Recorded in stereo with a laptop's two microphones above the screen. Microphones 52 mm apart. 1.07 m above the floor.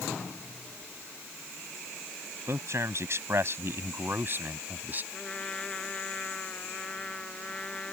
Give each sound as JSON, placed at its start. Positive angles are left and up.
{"t": 2.5, "sound": "a man speaking", "side_deg": -60}
{"t": 5.1, "sound": "a trumpet", "side_deg": 20}